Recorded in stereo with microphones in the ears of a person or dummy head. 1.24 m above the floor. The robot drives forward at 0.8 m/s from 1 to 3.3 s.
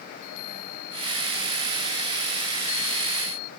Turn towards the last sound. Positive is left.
turn(degrees=85)